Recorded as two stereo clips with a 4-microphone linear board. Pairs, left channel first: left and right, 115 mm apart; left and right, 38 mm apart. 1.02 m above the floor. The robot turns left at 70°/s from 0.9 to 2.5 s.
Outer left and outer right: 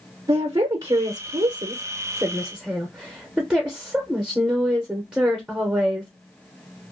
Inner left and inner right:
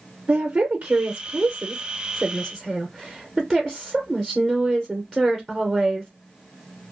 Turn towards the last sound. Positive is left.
turn(degrees=-170)